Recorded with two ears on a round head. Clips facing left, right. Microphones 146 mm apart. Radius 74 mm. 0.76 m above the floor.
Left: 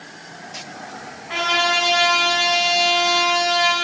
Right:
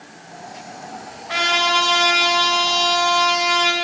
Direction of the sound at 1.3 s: 45° right (ahead or behind).